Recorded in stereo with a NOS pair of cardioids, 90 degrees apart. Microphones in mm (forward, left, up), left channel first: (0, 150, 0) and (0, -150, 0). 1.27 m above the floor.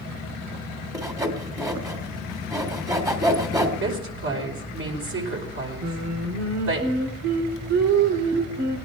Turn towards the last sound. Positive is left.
turn(degrees=-65)